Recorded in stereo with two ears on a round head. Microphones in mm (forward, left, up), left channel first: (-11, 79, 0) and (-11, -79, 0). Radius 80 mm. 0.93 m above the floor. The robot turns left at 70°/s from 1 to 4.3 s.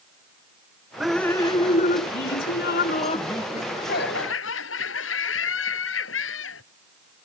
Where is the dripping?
175° right; by 3.4 s 15° left.